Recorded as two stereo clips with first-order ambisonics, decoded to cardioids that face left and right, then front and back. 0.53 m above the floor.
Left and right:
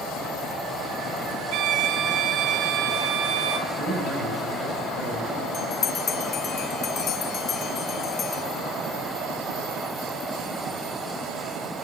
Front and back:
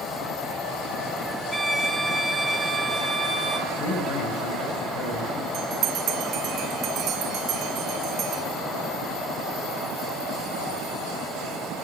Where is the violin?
90° right, 1.8 m.